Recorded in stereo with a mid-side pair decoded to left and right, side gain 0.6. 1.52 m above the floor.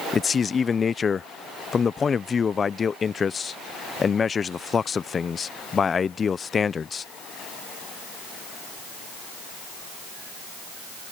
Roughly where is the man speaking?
Ahead left.